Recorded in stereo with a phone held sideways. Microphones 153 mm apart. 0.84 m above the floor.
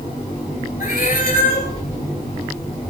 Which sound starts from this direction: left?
A cat meowing, at 0.8 s.